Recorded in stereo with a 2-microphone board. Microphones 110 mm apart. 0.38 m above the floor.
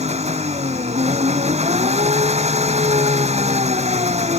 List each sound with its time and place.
0.0 s an engine running: 85° right